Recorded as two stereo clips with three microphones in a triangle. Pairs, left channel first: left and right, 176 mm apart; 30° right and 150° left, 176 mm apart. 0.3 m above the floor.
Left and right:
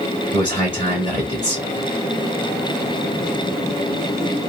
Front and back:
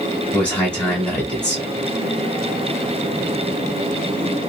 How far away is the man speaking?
About 1.5 m.